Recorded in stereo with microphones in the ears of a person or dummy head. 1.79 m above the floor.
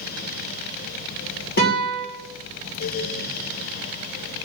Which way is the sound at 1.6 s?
50° left (ahead or behind).